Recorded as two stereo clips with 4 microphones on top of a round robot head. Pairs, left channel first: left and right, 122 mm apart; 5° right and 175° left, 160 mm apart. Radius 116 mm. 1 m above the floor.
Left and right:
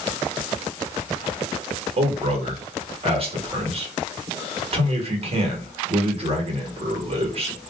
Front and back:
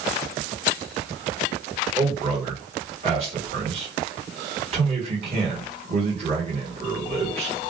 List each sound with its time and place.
2.0 s a man speaking: 130° right, 1.3 m